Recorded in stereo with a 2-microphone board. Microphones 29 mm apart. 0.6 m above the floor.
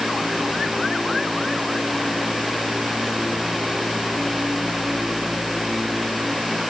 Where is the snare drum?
I don't hear a snare drum.